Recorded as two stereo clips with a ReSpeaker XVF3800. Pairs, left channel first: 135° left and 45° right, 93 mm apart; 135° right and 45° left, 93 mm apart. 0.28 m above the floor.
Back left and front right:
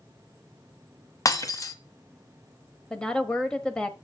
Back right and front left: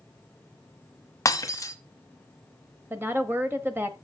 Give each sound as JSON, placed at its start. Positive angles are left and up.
{"t": 1.2, "sound": "breaking glass", "azimuth_deg": 180, "distance_m": 1.1}
{"t": 2.9, "sound": "a woman speaking", "azimuth_deg": 70, "distance_m": 1.1}